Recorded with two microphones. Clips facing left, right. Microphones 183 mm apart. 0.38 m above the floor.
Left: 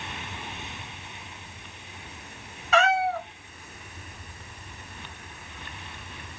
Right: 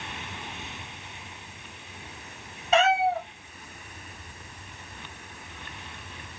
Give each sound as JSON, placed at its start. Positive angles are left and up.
{"t": 2.7, "sound": "a cat meowing", "side_deg": -25, "distance_m": 1.0}